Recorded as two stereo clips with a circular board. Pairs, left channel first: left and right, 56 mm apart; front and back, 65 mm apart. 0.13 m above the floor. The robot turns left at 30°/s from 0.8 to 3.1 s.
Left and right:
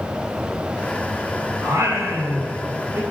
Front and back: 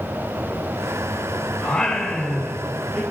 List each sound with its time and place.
1.6 s singing: 75° right, 4 m; by 3.0 s 115° right, 4 m